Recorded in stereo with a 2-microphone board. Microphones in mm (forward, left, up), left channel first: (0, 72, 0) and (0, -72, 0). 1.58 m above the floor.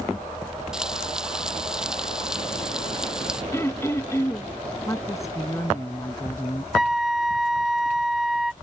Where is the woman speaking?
20° left (ahead or behind).